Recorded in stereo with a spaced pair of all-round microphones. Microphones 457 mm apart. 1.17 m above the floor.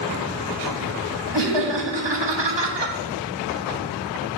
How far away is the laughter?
About 0.7 m.